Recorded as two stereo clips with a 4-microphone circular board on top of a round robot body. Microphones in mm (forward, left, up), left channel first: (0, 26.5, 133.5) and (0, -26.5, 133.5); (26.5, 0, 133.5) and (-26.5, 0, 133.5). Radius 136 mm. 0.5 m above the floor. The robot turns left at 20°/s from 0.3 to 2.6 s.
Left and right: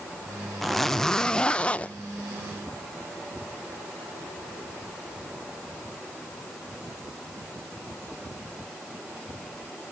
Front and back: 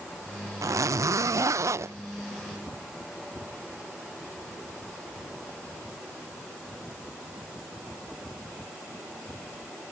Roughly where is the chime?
I don't hear a chime.